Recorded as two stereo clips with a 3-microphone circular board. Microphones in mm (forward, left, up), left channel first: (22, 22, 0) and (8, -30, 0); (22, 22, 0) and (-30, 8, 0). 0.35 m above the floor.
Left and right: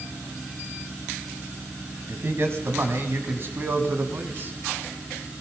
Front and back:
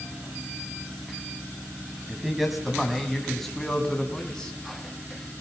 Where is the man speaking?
80° right, 3 m; by 4.5 s 60° right, 3.5 m.